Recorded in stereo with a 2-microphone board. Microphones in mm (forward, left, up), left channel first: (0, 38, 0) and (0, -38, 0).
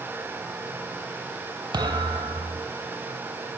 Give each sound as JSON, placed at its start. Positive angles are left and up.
{"t": 1.7, "sound": "a thud", "side_deg": -70, "distance_m": 2.0}